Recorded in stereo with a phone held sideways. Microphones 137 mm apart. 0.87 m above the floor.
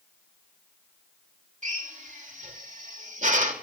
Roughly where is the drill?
Right.